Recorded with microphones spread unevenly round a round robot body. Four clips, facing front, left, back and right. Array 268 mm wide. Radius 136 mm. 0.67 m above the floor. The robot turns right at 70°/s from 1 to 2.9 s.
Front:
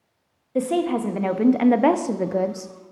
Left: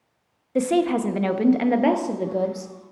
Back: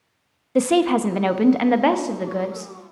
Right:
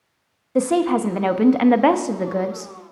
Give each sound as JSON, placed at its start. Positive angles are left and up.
{"t": 0.6, "sound": "a woman speaking", "azimuth_deg": -135, "distance_m": 0.6}